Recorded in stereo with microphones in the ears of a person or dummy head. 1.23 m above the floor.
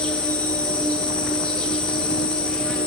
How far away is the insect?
About 3.5 m.